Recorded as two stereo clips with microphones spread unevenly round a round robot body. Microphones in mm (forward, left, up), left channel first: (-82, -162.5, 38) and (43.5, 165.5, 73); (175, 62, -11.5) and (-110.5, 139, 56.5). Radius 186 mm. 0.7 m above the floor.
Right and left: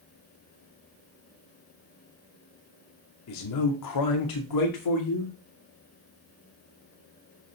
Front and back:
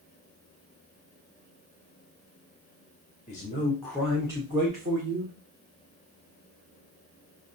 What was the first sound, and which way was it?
A man speaking, 75° right.